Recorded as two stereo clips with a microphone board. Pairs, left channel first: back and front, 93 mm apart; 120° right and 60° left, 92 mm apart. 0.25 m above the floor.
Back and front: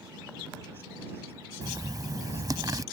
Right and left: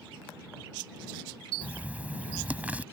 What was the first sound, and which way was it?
Writing, 5° right.